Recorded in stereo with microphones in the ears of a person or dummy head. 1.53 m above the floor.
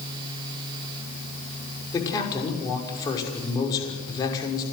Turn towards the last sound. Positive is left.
turn(degrees=20)  # may be behind; listen again after turning